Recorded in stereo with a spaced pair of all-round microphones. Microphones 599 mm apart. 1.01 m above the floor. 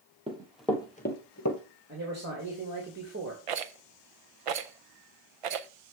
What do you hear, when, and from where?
0.3 s running footsteps: 10° right (ahead or behind), 1.3 m; by 1.6 s 30° left (ahead or behind), 1.1 m
1.9 s a man speaking: 25° right (ahead or behind), 1.8 m
3.5 s a rattle: 60° right (ahead or behind), 0.5 m